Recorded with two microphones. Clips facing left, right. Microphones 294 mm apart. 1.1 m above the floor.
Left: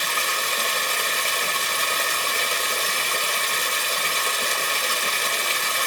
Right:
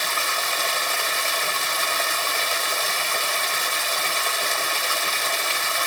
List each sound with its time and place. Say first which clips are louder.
0.0 s running water: even; 40° left (ahead or behind), 2 m